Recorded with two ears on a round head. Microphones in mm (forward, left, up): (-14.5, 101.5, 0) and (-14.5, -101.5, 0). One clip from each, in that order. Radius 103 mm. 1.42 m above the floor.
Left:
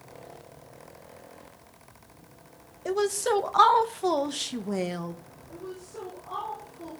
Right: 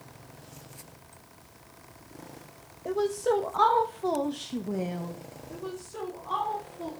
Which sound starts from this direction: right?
A woman speaking, at 5.5 s.